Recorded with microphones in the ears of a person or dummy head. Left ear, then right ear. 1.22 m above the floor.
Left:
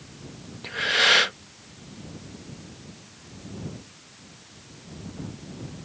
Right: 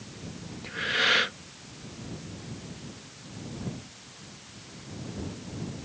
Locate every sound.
0.6 s breathing: 20° left (ahead or behind)